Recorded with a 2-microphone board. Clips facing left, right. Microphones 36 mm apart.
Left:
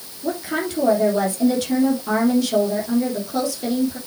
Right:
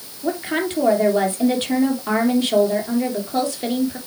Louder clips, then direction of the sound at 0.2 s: Right 2 dB; 40° right (ahead or behind).